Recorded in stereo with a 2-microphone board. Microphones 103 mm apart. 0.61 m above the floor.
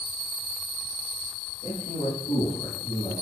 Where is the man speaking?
60° left (ahead or behind), 7 m; by 3.1 s 65° left (ahead or behind), 7 m.